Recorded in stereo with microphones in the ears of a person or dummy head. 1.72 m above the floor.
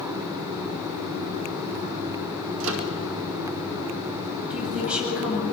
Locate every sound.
2.6 s a microwave: 70° right (ahead or behind), 2.5 m
4.5 s a woman speaking: centre (ahead or behind), 9 m